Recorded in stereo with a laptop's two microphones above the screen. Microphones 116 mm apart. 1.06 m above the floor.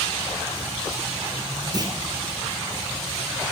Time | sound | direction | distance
1.7 | a clunk | 35° right (ahead or behind) | 0.9 m